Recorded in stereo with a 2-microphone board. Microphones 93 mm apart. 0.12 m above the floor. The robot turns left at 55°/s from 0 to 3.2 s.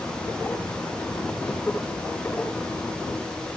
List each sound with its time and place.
Only background noise.